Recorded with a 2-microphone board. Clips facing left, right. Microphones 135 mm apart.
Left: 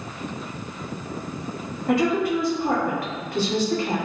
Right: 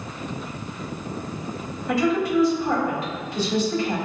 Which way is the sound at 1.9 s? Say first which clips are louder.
Left 1 dB; 55° left (ahead or behind).